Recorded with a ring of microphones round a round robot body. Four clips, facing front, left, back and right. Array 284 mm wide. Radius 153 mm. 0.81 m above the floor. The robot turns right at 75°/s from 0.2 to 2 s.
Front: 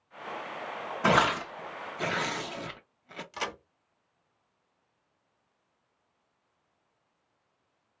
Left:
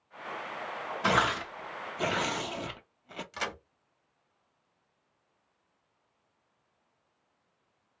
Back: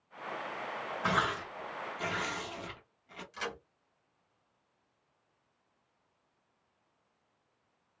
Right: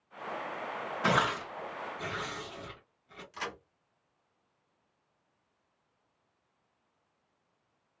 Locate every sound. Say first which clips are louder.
1.0 s tearing paper: left 2 dB, front 8 dB; 10° right, 0.7 m; by 3.2 s 60° left, 0.7 m
3.3 s a crack: left 2 dB, front 4 dB; 35° left, 1.2 m